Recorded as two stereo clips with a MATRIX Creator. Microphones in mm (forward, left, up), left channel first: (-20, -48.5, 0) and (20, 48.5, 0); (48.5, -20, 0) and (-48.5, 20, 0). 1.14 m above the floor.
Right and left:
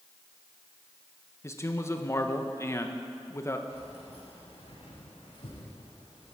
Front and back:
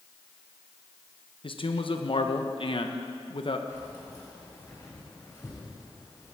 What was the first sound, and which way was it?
A man speaking, 50° right.